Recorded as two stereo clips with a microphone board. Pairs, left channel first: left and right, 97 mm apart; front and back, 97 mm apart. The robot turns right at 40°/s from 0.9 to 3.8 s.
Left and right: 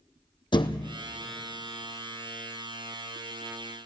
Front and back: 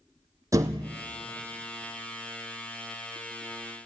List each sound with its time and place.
0.5 s a thud: 120° left, 0.9 m; by 1.0 s 125° left, 0.9 m